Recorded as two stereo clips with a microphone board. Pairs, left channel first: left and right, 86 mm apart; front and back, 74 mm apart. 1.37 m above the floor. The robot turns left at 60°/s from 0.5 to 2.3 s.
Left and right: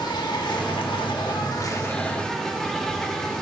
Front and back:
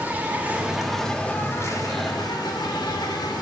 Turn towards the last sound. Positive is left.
turn(degrees=5)